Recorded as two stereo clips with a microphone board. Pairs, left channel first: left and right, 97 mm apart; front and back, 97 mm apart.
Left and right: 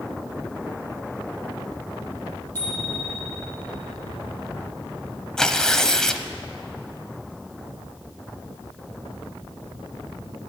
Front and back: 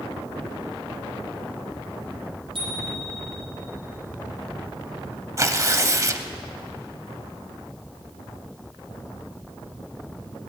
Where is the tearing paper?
170° left, 0.8 m.